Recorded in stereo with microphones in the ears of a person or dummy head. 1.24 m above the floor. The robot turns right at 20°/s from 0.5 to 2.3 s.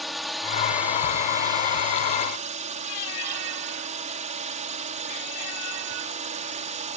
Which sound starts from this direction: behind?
A drone, at 0.0 s.